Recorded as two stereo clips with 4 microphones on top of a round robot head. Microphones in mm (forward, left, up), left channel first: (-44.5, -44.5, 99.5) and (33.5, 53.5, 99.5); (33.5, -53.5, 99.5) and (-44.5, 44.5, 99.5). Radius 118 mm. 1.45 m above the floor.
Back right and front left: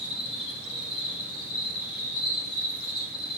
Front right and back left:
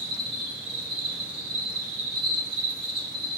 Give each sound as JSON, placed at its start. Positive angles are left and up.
{"t": 0.0, "sound": "an insect", "azimuth_deg": 175, "distance_m": 2.5}